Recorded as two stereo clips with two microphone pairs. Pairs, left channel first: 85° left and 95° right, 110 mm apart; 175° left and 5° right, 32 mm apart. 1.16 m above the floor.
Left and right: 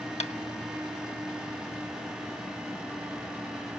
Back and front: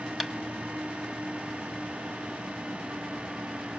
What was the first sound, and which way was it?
Tapping, 80° left.